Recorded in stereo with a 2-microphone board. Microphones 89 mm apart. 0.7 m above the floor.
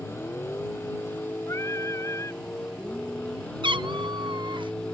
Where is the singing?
30° left (ahead or behind).